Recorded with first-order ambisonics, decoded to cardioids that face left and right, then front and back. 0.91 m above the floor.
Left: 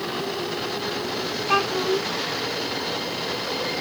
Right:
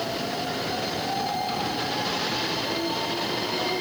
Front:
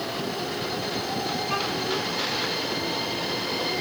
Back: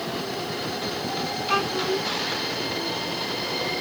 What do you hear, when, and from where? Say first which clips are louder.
1.5 s a child speaking: left 6 dB, back 6 dB; 110° left